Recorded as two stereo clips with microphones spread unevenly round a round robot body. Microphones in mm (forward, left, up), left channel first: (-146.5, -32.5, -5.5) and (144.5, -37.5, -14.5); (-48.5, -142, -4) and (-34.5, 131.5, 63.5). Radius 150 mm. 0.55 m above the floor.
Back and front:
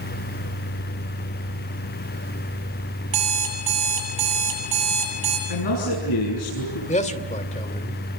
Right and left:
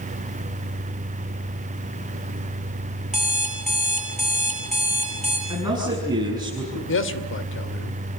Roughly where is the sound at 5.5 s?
Behind.